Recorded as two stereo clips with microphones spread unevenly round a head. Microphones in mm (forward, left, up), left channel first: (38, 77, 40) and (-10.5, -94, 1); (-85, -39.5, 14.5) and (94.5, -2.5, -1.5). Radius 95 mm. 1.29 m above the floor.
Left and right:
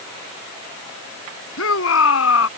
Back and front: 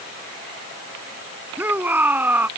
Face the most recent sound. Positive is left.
turn(degrees=95)